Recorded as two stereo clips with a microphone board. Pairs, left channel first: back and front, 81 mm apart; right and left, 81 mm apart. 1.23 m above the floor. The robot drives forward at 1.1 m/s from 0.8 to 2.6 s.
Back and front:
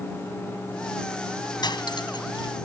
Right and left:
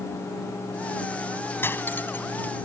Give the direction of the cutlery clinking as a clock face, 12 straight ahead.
5 o'clock.